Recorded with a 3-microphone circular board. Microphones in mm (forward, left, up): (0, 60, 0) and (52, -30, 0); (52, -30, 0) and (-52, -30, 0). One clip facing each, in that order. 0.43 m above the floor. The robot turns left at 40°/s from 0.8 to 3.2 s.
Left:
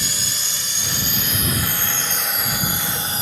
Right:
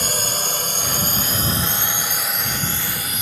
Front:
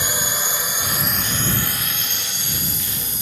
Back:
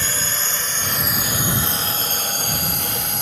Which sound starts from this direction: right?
A drone, at 0.0 s.